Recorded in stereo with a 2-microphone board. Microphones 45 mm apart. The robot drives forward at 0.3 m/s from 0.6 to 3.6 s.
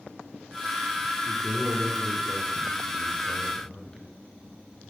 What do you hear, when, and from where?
1.2 s a man speaking: 20° left (ahead or behind), 2.0 m; by 4.1 s 25° left (ahead or behind), 1.8 m